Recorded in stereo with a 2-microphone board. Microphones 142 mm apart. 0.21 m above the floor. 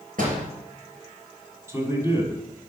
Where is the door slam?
70° right (ahead or behind), 3 m.